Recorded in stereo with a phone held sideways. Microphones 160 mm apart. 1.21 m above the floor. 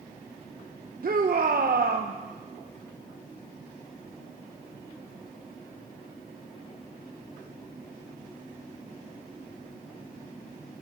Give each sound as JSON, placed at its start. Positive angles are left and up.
{"t": 1.0, "sound": "a shout", "side_deg": -65, "distance_m": 0.8}